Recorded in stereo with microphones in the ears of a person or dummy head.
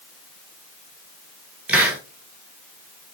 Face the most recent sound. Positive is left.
turn(degrees=-5)  # may be behind; listen again after turning